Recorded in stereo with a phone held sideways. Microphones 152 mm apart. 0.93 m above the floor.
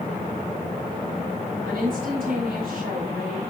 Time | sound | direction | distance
1.6 | a woman speaking | 80° right | 5 m